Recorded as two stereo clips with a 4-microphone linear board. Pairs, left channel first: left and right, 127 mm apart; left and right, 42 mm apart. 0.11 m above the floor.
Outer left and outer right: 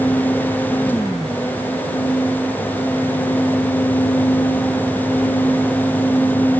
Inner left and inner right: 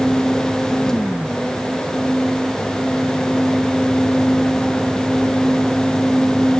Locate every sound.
Only background noise.